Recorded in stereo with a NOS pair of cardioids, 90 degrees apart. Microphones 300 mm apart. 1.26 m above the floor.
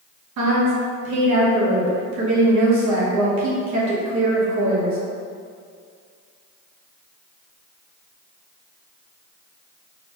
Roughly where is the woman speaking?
Right.